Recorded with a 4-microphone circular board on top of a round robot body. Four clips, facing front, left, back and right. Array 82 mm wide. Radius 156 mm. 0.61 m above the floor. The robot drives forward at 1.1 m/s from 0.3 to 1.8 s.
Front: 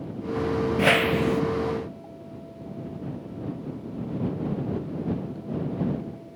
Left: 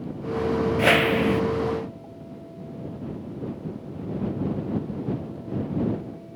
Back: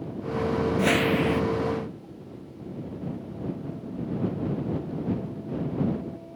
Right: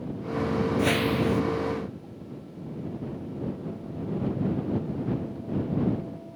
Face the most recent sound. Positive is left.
turn(degrees=155)